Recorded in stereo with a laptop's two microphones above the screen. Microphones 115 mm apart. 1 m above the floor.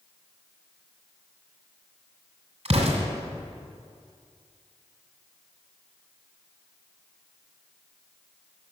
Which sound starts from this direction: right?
An explosion, at 2.6 s.